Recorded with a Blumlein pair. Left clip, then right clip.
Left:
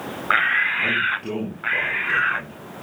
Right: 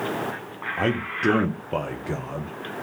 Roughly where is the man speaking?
Ahead right.